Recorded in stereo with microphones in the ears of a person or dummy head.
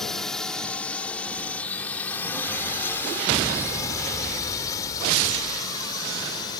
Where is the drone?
5° left (ahead or behind); by 6.6 s 25° left (ahead or behind).